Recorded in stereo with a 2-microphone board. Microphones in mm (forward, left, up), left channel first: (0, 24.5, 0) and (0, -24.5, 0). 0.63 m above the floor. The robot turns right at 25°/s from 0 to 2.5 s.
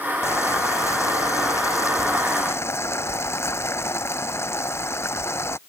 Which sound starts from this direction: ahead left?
Boiling, at 0.2 s.